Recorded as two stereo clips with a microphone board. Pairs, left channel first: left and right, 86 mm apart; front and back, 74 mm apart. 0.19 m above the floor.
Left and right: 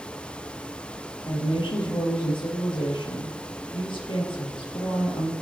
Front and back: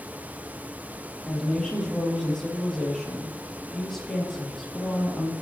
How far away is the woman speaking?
About 4.5 m.